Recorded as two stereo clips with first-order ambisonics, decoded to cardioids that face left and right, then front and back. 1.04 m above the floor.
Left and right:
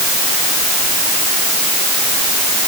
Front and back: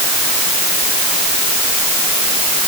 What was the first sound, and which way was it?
Only background noise.